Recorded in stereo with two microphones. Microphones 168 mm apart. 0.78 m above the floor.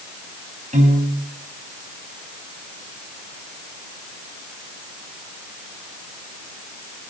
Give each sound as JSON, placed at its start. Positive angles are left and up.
{"t": 0.7, "sound": "a piano", "side_deg": -45, "distance_m": 4.0}